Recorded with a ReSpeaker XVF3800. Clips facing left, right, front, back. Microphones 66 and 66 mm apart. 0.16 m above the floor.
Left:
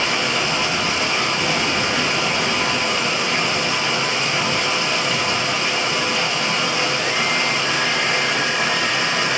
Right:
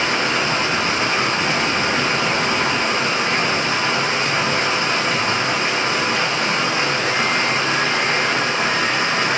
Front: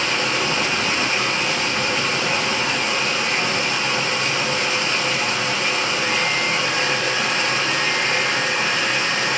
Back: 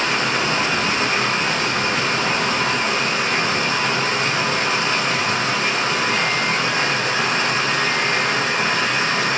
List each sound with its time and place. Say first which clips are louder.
0.0 s running water: right 2 dB, back 2 dB; 135° right, 0.9 m